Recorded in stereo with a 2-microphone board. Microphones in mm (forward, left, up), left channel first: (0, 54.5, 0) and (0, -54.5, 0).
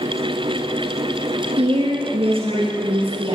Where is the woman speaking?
60° right (ahead or behind), 3 m; by 3.4 s 55° right (ahead or behind), 3.5 m.